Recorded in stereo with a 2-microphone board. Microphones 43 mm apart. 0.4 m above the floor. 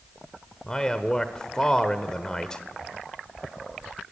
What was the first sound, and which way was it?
A man speaking, 15° left (ahead or behind).